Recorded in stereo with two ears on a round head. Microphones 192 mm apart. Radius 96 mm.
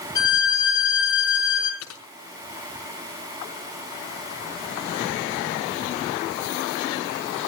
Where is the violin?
20° left (ahead or behind), 4.5 m.